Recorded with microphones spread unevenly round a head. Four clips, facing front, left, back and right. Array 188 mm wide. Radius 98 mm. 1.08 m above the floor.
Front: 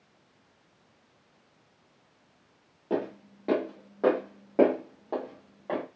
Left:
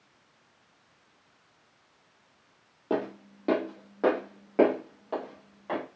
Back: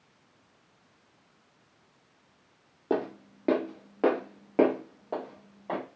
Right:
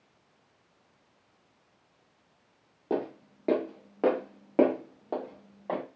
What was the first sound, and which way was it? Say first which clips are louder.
Footsteps: left 1 dB, back 1 dB; straight behind.